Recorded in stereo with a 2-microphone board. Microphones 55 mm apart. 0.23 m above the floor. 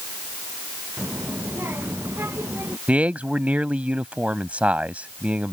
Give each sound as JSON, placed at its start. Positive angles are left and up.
{"t": 1.0, "sound": "a child speaking", "side_deg": -45}
{"t": 2.9, "sound": "a man speaking", "side_deg": -25}